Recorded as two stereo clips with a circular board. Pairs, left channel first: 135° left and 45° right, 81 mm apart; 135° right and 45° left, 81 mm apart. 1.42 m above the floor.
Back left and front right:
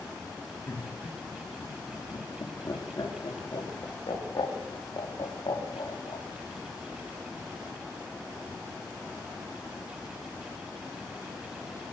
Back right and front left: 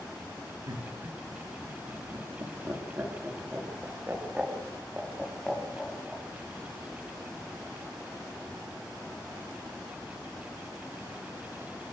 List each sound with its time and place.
0.7 s laughter: 75° left, 4 m; by 6.2 s 140° left, 4.5 m